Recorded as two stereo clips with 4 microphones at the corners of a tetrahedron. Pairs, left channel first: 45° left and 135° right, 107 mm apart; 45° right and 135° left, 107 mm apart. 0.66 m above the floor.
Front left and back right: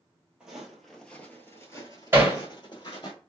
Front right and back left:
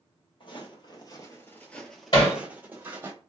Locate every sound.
0.4 s footsteps: 55° right, 0.9 m; by 3.1 s 75° left, 1.1 m
2.1 s hammering: 70° right, 1.5 m